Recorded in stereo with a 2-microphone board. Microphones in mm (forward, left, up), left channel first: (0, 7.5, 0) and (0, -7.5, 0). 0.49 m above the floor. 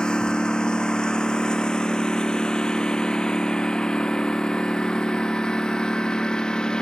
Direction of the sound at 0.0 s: 75° left (ahead or behind).